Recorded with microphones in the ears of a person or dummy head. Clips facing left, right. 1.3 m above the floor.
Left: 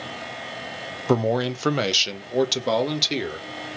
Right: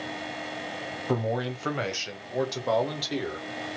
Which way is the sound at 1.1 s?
75° left (ahead or behind).